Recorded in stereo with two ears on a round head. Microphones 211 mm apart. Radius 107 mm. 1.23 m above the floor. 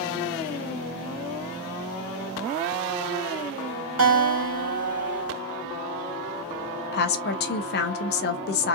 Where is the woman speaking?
45° left (ahead or behind), 0.7 m.